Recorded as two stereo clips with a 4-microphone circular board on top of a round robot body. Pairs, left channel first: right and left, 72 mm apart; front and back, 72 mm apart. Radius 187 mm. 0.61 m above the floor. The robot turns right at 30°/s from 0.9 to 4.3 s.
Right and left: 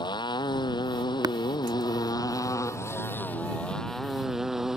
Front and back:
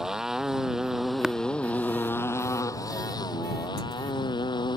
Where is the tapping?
100° left.